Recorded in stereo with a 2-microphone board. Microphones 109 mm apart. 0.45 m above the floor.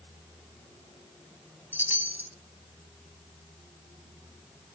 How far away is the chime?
About 0.9 m.